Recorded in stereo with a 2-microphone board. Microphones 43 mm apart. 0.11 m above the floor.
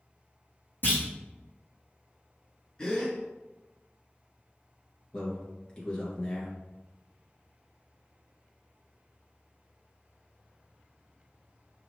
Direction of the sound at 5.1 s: 20° left (ahead or behind).